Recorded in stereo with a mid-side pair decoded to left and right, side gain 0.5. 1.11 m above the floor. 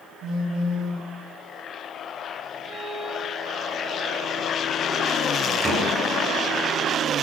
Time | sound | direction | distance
0.2 | a phone buzzing | 65° right | 5.5 m
2.6 | a violin | 55° right | 4.5 m
5.6 | a door slam | 30° right | 10 m